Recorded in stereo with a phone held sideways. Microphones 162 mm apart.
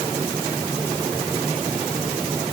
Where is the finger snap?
No finger snap in this recording.